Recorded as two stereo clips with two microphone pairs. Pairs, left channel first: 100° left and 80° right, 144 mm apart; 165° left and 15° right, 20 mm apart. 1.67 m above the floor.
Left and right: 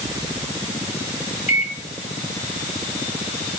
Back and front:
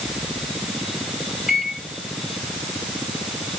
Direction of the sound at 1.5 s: 60° left.